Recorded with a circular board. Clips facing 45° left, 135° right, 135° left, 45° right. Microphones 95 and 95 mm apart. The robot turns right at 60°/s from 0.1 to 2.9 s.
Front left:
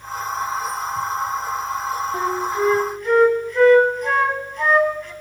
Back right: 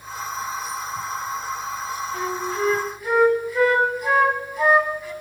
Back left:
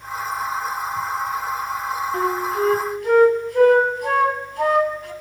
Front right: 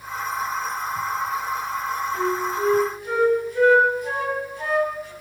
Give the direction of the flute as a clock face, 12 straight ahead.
9 o'clock.